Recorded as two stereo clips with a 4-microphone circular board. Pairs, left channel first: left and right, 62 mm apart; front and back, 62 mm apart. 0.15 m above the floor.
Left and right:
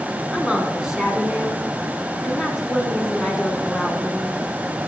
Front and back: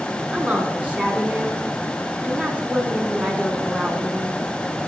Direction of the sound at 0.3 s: 160° right.